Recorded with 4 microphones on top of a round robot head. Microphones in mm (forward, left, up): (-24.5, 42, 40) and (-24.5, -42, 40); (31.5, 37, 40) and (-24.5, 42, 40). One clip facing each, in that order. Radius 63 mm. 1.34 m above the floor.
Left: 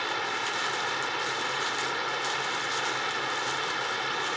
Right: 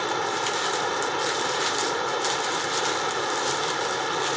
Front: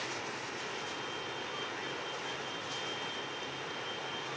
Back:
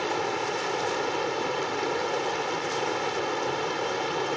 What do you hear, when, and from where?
0.0 s running water: 150° right